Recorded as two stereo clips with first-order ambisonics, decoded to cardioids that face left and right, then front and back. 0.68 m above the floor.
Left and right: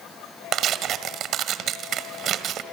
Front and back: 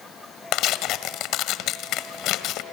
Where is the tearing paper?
40° right, 1.5 m.